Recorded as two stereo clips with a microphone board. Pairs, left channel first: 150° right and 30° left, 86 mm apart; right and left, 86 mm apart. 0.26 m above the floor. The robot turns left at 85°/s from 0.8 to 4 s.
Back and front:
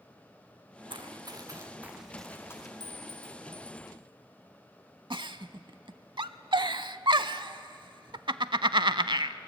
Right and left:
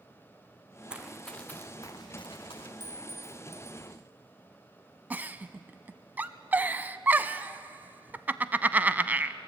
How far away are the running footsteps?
About 1.2 m.